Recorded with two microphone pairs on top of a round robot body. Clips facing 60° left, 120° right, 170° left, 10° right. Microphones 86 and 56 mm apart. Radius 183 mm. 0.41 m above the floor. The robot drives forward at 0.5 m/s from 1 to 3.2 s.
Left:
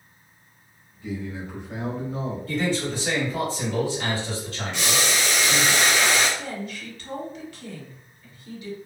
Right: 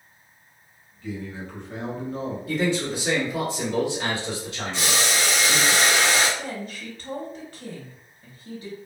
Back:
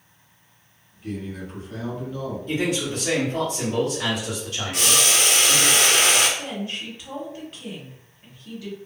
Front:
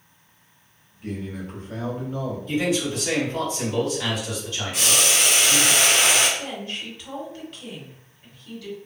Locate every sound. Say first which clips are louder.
1.0 s a man speaking: left 1 dB, even; 10° right, 1.6 m; by 2.4 s 25° right, 1.2 m
2.5 s a man speaking: right 1 dB, front 1 dB; 175° left, 1.8 m
4.7 s boiling: even, back 1 dB; 175° right, 1.1 m
6.4 s a woman speaking: even, back 1 dB; 130° right, 1.4 m